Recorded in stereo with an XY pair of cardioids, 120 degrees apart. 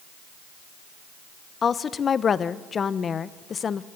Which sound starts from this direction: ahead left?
A woman speaking, at 1.6 s.